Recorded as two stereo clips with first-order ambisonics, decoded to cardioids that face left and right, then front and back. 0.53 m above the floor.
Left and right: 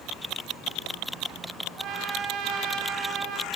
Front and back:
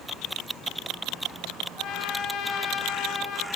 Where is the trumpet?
50° right, 0.9 m.